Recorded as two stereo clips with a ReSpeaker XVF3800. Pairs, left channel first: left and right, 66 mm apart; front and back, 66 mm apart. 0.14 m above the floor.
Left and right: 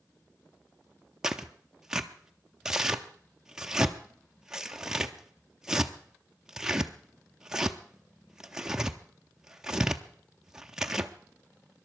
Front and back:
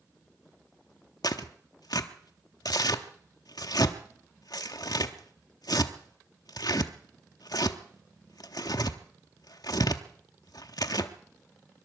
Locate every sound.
1.2 s tearing paper: 10° right, 0.8 m